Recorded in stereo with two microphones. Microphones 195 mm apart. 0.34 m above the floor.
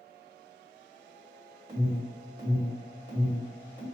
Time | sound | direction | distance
1.7 | an alarm | 25° right (ahead or behind) | 1.9 m